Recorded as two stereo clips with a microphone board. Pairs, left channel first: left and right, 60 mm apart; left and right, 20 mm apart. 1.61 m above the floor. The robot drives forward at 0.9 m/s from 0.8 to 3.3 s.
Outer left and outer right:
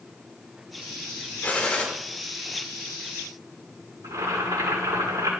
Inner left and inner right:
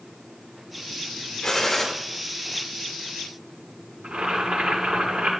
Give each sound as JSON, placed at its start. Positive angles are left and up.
{"t": 1.4, "sound": "a gunshot", "side_deg": 20, "distance_m": 2.5}
{"t": 4.0, "sound": "boiling", "side_deg": -85, "distance_m": 6.5}